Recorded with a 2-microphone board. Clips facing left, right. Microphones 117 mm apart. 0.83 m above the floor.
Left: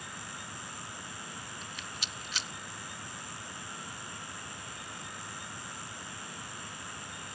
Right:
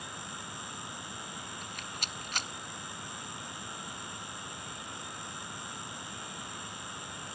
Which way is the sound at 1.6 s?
50° right (ahead or behind).